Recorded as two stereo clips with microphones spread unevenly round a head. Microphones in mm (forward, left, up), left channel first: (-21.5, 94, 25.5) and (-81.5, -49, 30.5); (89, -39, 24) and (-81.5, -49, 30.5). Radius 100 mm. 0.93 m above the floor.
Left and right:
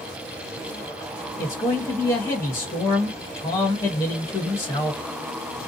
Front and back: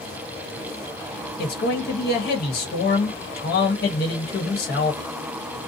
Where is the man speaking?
5° right, 1.1 m.